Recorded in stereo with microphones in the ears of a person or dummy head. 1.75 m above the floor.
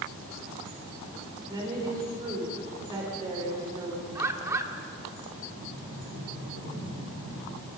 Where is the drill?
I don't hear a drill.